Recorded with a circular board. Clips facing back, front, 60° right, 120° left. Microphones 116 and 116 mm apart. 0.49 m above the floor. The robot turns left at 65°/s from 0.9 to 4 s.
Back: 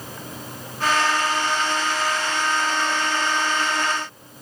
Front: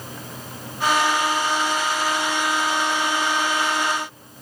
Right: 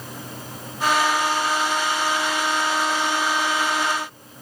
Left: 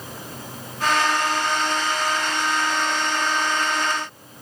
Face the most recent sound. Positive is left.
No sound to turn to.